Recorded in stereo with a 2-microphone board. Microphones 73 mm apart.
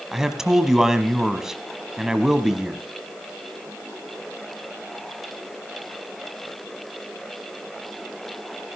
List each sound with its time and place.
0.1 s a man speaking: 5° right (ahead or behind), 1.1 m